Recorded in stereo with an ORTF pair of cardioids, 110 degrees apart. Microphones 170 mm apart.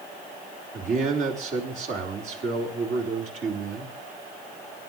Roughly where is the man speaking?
Ahead right.